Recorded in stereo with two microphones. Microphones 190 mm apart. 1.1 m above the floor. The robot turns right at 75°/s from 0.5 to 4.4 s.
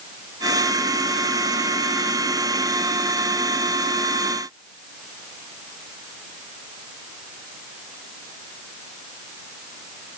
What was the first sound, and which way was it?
Only background noise.